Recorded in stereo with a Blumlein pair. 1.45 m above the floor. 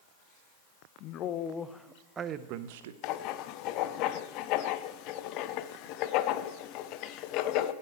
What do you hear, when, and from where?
1.0 s a man speaking: 40° left, 0.9 m; by 2.9 s 60° right, 0.8 m
3.0 s writing: 40° left, 0.6 m